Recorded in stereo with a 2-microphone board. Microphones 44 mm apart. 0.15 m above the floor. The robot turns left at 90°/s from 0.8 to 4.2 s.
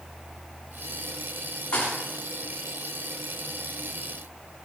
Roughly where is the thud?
Left.